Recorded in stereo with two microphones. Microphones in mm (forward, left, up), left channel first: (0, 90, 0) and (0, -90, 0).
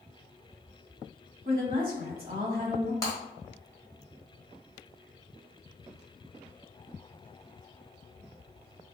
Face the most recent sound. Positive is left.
turn(degrees=20)  # may be behind; listen again after turning